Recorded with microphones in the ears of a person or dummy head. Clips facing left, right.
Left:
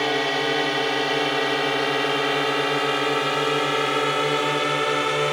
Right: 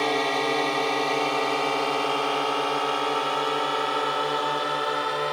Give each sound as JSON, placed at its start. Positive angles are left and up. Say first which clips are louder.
{"t": 0.0, "sound": "a drone", "louder": "left 1 dB", "side_deg": 5}